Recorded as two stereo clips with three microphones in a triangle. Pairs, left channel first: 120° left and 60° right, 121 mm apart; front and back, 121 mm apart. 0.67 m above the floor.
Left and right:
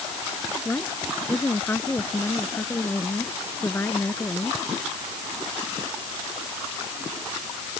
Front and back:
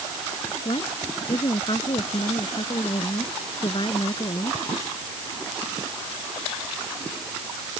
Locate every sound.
0.7 s a woman speaking: 50° left